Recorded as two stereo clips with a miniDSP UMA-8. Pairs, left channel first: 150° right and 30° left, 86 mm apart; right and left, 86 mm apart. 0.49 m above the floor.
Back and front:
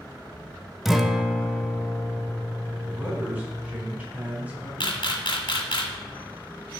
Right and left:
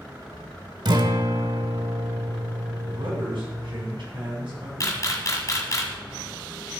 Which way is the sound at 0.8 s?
115° left.